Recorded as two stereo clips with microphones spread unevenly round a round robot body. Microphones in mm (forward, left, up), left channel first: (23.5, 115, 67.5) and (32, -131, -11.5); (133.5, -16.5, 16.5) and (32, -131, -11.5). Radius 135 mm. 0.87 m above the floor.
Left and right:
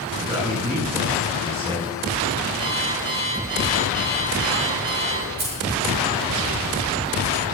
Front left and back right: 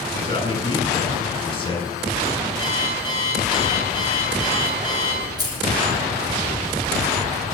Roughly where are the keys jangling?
Ahead right.